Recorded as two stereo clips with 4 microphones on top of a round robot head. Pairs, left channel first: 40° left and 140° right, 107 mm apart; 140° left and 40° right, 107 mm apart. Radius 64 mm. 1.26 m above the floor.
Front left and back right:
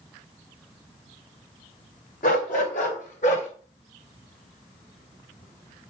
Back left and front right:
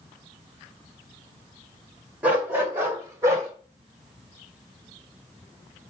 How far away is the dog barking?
About 2.5 m.